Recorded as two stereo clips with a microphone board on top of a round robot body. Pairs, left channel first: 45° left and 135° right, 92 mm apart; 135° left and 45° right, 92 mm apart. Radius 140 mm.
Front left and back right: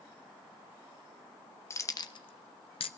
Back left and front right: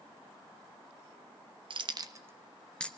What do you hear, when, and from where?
1.7 s keys jangling: 15° right, 0.6 m; by 2.9 s 60° left, 0.6 m